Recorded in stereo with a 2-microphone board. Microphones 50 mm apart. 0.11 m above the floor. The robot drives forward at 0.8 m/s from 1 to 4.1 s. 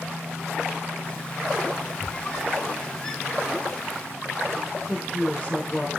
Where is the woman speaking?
25° left (ahead or behind), 3 m.